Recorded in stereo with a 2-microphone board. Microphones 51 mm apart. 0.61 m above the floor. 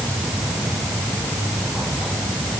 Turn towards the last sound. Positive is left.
No sound to turn to.